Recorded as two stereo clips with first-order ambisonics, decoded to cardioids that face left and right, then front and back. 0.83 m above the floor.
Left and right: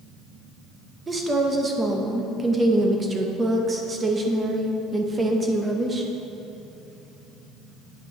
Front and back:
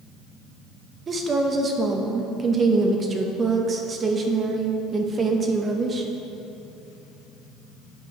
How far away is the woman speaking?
About 0.6 m.